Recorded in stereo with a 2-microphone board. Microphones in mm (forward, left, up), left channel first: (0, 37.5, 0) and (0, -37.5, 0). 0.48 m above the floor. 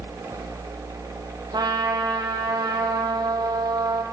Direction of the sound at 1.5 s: 65° right (ahead or behind).